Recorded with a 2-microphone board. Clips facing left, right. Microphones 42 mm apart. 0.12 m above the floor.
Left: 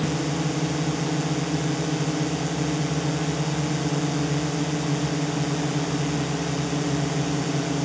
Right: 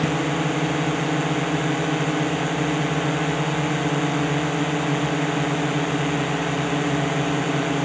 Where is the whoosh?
I don't hear a whoosh.